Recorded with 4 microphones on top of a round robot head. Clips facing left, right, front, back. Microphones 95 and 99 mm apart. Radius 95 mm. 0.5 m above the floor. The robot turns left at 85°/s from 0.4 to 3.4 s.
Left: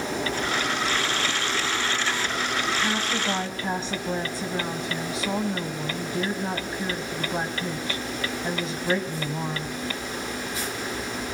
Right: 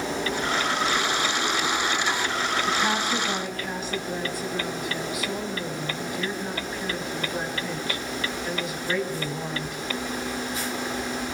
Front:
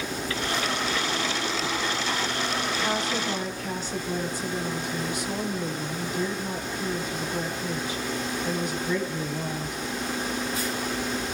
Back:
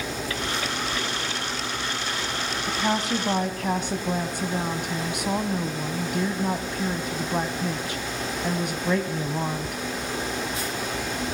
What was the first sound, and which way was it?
A woman speaking, 140° right.